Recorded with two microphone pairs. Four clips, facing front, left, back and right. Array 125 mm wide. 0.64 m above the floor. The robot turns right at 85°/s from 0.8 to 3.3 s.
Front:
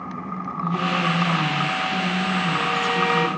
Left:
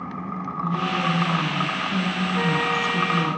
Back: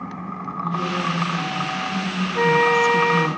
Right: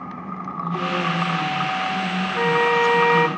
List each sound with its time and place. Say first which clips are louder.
0.6 s a woman speaking: right 1 dB, front 1 dB; 15° right, 5 m; by 3.4 s 160° right, 5 m
2.4 s a flute: right 7 dB, back 6 dB; 170° right, 2.5 m; by 3.3 s 90° right, 2.5 m